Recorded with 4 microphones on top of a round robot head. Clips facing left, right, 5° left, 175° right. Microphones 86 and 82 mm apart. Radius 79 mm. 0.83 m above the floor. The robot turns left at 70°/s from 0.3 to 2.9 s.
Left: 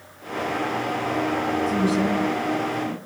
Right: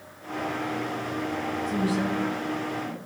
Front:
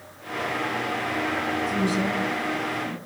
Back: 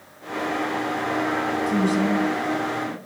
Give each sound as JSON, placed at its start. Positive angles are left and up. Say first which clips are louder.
{"t": 1.7, "sound": "a woman speaking", "louder": "left 3 dB, back 6 dB", "azimuth_deg": 175, "distance_m": 6.5}